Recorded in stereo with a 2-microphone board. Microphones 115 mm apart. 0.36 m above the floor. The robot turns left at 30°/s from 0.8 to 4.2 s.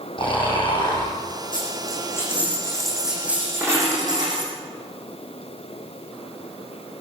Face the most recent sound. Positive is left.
turn(degrees=-40)